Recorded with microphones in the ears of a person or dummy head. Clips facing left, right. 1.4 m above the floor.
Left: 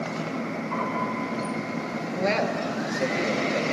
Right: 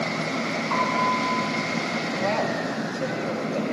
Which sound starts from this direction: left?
A man speaking, at 2.2 s.